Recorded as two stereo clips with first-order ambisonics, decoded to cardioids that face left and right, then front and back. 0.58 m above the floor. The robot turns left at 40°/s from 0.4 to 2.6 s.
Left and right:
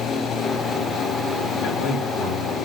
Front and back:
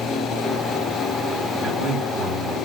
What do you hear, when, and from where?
1.6 s a man speaking: 100° left, 2.5 m; by 2.5 s 65° left, 2.5 m